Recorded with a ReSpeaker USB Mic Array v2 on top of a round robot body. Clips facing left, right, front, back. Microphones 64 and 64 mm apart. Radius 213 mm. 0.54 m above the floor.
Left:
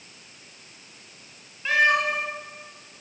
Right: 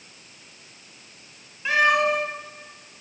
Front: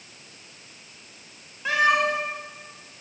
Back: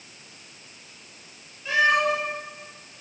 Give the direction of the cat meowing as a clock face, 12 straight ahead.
12 o'clock.